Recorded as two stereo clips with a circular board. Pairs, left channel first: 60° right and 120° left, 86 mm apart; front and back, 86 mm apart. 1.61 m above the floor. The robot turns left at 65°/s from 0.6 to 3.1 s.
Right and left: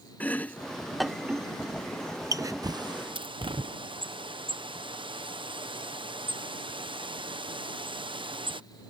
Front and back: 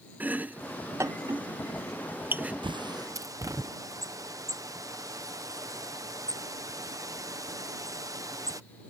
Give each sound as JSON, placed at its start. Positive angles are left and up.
{"t": 0.2, "sound": "chopping", "azimuth_deg": -120}
{"t": 2.6, "sound": "a bird", "azimuth_deg": 160}